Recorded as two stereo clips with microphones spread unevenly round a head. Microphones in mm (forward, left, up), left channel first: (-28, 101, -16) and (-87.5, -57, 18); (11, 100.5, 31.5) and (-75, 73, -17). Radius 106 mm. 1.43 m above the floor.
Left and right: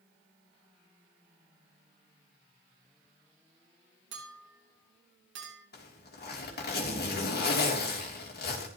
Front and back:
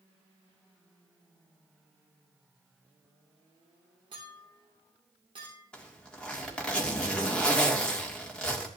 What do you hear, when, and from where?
4.1 s a clink: 90° right, 3 m
5.7 s a zipper: 95° left, 3 m